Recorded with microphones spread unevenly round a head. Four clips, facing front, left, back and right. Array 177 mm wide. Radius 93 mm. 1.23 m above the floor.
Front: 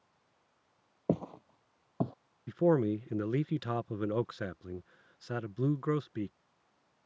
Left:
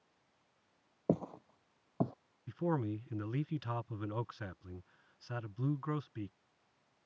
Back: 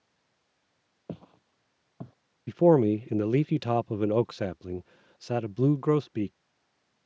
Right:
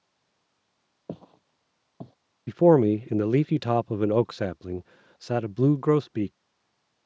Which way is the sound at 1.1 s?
35° left.